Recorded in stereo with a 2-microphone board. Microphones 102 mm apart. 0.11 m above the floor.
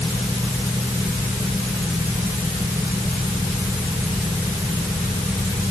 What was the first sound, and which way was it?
Only background noise.